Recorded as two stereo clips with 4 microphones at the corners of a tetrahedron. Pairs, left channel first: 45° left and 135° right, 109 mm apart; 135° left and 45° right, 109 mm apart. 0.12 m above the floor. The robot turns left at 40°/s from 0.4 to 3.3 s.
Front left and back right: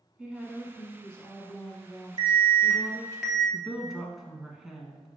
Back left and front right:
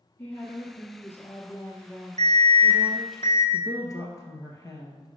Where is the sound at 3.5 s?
140° left, 1.2 m.